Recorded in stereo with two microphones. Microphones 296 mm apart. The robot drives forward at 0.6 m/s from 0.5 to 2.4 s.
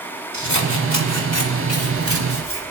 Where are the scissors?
70° left (ahead or behind), 1.8 m; by 2.6 s 45° left (ahead or behind), 2.5 m.